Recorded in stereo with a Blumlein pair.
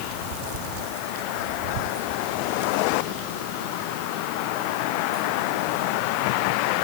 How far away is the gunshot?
I don't hear a gunshot.